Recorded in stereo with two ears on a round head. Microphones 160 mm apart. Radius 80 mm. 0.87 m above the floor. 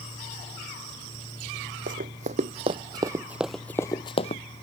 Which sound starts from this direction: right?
Running footsteps, at 1.9 s.